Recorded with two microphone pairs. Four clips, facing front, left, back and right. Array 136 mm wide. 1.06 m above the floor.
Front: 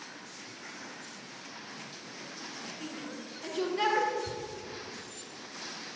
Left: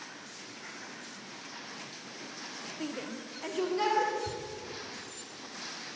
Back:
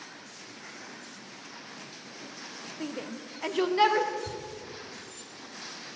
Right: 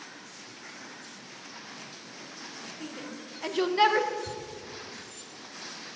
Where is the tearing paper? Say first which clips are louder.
Even, even; 150° right, 2.5 m.